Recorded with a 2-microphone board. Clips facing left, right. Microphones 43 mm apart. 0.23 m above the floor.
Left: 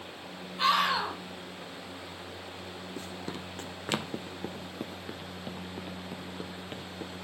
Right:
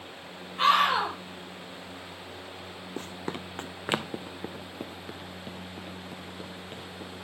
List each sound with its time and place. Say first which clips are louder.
0.6 s a scream: right 4 dB; 35° right (ahead or behind), 7 m
3.0 s running footsteps: right 5 dB; 50° right (ahead or behind), 0.8 m; by 7.1 s 15° left (ahead or behind), 2.5 m